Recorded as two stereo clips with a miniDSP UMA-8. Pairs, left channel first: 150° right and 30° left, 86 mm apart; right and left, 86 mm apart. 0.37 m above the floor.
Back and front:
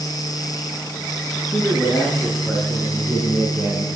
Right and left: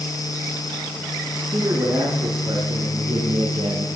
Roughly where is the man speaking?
Behind left.